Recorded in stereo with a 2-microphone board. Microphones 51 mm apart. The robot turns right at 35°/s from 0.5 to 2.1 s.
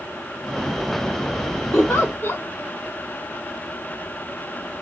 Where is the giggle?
45° left (ahead or behind), 1.8 m.